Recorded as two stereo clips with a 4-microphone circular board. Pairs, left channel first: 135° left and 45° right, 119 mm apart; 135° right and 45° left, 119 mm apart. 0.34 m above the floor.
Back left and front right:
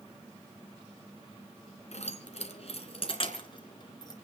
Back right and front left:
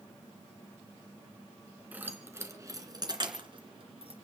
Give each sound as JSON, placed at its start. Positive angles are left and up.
{"t": 1.9, "sound": "keys jangling", "azimuth_deg": 120, "distance_m": 2.5}